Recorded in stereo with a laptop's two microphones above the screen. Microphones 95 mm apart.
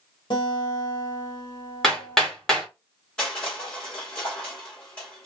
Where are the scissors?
No scissors in this recording.